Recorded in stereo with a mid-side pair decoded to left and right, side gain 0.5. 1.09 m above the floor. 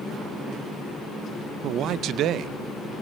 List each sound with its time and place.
1.6 s a man speaking: 70° right, 0.5 m